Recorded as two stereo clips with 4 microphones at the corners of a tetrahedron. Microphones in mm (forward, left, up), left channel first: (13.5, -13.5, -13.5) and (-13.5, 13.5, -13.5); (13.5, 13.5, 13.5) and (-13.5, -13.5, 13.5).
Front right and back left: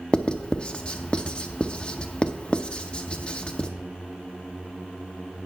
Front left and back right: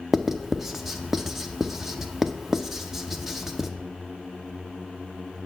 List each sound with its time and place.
0.1 s writing: 60° right, 0.7 m